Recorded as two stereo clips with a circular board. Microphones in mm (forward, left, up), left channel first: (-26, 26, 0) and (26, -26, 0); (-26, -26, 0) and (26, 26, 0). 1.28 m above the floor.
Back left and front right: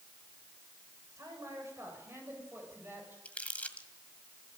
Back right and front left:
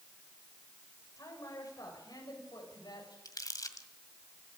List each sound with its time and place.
1.2 s a man speaking: 95° right, 7 m; by 3.1 s 110° right, 8.5 m
3.2 s crumpling: 160° right, 1.8 m